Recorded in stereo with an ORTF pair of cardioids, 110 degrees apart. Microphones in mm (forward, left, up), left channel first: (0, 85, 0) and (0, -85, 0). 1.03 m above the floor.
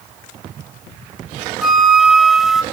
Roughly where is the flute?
Ahead.